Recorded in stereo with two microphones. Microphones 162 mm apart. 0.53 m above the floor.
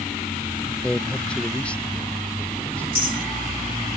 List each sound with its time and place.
0.8 s a man speaking: 5° left (ahead or behind); by 2.8 s 10° left (ahead or behind)
2.9 s a clink: 65° right (ahead or behind)